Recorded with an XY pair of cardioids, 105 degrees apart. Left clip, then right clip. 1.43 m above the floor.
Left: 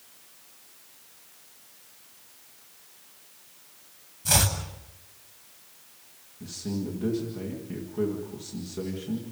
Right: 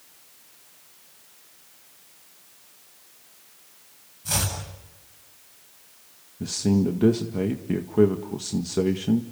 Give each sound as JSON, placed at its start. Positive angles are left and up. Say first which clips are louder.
{"t": 4.2, "sound": "chopping", "louder": "left 3 dB", "azimuth_deg": 40, "distance_m": 8.0}
{"t": 6.4, "sound": "a man speaking", "louder": "right 10 dB", "azimuth_deg": -70, "distance_m": 1.8}